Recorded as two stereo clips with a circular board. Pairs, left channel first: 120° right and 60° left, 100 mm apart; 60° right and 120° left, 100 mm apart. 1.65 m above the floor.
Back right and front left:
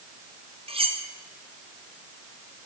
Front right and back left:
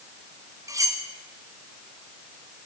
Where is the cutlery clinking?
65° left, 2 m.